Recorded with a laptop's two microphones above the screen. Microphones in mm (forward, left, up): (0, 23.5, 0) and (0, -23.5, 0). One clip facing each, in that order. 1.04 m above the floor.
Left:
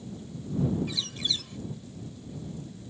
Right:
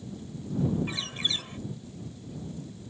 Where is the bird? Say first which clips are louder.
Right 1 dB; 30° right (ahead or behind).